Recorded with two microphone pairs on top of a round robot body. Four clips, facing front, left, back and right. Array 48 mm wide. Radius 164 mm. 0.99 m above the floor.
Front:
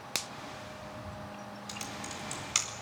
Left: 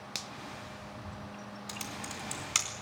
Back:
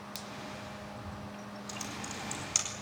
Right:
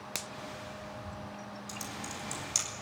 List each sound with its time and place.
0.1 s a finger snap: 30° right, 0.6 m
1.7 s typing on a keyboard: 65° left, 4 m